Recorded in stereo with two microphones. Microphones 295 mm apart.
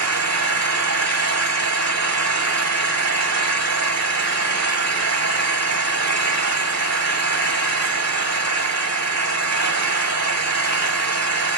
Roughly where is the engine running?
Right.